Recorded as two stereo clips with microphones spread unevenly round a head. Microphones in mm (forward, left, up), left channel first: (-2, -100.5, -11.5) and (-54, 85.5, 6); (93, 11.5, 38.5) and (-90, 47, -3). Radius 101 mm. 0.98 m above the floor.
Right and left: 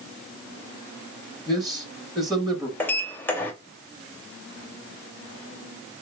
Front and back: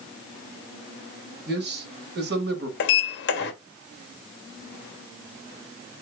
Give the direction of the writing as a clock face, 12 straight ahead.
I don't hear writing.